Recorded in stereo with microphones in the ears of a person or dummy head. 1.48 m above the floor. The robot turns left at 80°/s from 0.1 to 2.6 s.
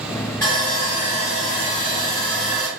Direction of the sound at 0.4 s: 165° left.